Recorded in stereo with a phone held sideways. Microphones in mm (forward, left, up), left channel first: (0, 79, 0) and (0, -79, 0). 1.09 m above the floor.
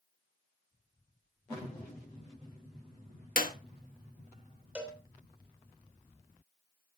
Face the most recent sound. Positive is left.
turn(degrees=-10)  # may be behind; listen again after turning